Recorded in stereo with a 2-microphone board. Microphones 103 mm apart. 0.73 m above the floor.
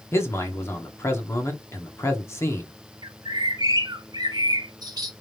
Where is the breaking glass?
No breaking glass in this recording.